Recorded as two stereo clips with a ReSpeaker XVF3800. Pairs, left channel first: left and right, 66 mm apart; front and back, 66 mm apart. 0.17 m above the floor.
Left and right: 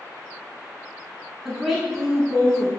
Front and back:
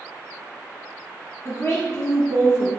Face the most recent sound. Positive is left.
turn(degrees=-5)